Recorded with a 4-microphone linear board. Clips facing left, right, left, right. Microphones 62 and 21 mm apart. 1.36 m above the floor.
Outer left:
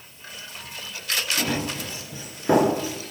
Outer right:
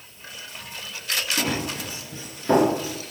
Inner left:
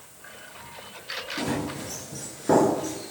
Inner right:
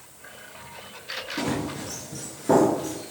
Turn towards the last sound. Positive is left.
turn(degrees=35)  # may be behind; listen again after turning